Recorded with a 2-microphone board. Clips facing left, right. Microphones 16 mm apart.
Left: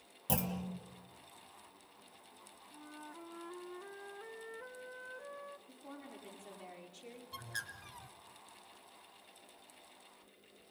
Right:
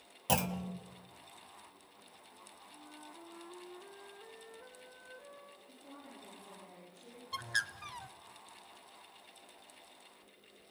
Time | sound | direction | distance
0.3 | a clunk | 30° right (ahead or behind) | 1.3 m
2.7 | a flute | 20° left (ahead or behind) | 0.7 m
5.7 | a woman speaking | 55° left (ahead or behind) | 7 m
7.3 | a bird | 45° right (ahead or behind) | 0.9 m